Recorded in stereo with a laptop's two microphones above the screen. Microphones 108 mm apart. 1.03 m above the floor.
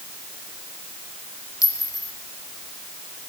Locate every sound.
1.6 s a clink: 30° left (ahead or behind), 1.0 m